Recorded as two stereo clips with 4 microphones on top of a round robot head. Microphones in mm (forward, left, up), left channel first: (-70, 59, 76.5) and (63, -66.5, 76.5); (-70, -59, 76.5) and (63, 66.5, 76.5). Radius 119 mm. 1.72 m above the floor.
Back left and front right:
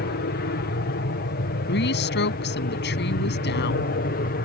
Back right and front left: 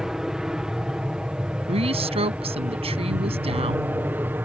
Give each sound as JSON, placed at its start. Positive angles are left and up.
{"t": 0.0, "sound": "an aircraft", "azimuth_deg": 130}
{"t": 1.7, "sound": "a woman speaking", "azimuth_deg": 105}